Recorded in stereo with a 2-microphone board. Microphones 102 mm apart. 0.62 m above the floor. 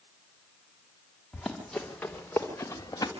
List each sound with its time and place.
1.3 s running footsteps: centre (ahead or behind), 4 m; by 3.1 s 35° left (ahead or behind), 3 m